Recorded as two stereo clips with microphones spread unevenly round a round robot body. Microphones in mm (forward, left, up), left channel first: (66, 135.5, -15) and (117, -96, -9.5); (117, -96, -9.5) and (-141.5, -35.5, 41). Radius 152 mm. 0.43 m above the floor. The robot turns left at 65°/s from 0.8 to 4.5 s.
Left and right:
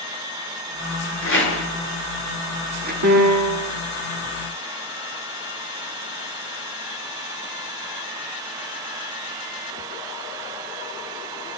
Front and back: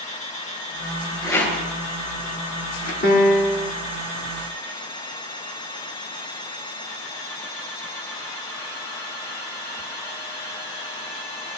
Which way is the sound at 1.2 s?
80° left.